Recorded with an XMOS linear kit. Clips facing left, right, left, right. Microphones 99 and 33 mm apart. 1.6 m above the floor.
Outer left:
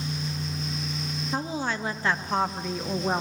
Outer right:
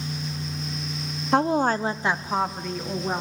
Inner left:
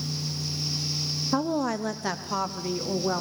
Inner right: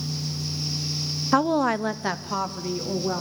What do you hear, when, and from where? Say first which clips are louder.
1.3 s a woman speaking: outer right 10 dB, inner right 6 dB; 75° right (ahead or behind), 0.8 m; by 3.2 s 15° left (ahead or behind), 2 m